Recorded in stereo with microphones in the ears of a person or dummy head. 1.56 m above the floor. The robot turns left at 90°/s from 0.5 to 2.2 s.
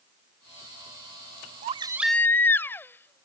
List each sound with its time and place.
1.6 s a baby crying: 140° right; by 3.2 s 170° left